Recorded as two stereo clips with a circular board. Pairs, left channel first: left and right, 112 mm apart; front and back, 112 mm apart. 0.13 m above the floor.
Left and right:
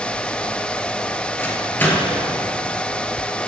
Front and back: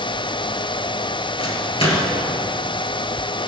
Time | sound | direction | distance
1.4 | a microwave | 20° left | 2 m